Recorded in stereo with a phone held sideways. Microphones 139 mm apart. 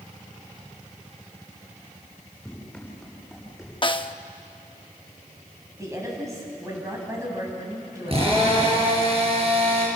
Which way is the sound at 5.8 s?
20° right (ahead or behind).